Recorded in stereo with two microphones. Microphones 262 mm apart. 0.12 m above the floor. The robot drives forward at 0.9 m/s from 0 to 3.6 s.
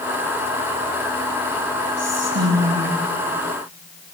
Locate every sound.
2.0 s whispering: 75° right (ahead or behind), 4 m